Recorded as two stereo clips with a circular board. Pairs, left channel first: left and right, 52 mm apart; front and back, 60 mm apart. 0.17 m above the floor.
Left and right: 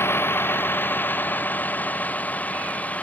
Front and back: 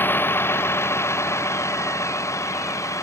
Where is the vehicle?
55° left; by 3.0 s 30° left.